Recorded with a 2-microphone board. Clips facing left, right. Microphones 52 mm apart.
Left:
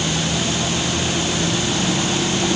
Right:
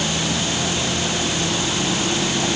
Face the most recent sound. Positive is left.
No sound to turn to.